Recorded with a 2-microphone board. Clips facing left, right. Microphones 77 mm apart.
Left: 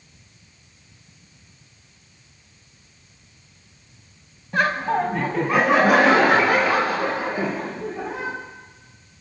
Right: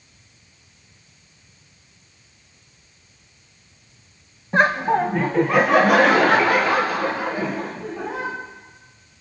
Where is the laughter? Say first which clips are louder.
Right 3 dB; 25° right (ahead or behind), 1.0 m; by 8.3 s 15° left (ahead or behind), 5.5 m.